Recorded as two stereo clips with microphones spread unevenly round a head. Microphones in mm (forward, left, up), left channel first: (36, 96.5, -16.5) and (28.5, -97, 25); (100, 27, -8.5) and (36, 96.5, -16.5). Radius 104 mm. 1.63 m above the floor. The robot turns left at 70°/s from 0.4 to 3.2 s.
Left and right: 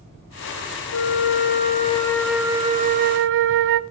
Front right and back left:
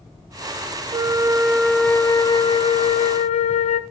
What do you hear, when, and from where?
0.9 s a flute: 95° left, 1.1 m; by 3.8 s 65° right, 1.1 m